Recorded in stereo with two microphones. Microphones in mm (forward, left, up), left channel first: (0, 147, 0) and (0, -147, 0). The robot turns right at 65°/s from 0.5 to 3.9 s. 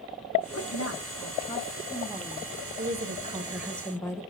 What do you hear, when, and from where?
0.5 s a woman speaking: 75° left, 1.5 m; by 2.5 s 155° right, 1.5 m
2.8 s a woman speaking: 60° right, 1.2 m; by 4.2 s 15° left, 1.2 m